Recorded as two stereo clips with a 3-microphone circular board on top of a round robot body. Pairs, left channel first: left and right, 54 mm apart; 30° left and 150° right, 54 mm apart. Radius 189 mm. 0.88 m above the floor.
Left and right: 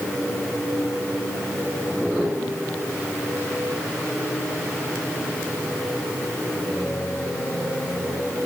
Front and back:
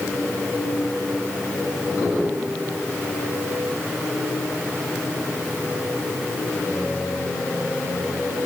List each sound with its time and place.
Only background noise.